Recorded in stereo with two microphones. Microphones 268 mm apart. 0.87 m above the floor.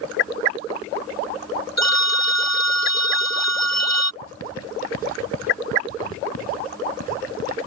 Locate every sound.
1.8 s a phone ringing: 75° left (ahead or behind)
4.2 s writing: 80° left